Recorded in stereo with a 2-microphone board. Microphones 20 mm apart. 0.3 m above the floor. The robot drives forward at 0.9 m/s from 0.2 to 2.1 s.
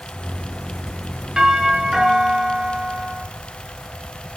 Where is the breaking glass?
No breaking glass in this recording.